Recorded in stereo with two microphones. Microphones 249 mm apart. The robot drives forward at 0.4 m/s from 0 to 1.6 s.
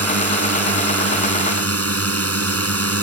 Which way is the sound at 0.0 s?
75° right (ahead or behind).